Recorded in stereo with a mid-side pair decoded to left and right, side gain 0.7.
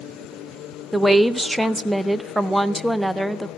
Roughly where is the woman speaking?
Ahead.